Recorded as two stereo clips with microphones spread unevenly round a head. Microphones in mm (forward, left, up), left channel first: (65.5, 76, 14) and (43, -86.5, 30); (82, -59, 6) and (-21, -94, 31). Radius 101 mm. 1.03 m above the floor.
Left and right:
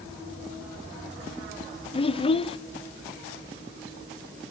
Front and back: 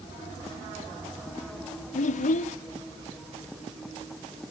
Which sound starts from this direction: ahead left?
A child speaking, at 1.9 s.